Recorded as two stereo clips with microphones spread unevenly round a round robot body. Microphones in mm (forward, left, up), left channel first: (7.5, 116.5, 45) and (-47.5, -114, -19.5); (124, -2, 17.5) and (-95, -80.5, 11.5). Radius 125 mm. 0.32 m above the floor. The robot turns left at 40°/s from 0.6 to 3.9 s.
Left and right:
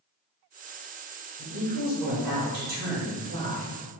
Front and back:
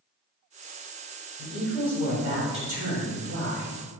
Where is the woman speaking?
60° right, 1.8 m; by 3.8 s 155° right, 1.8 m.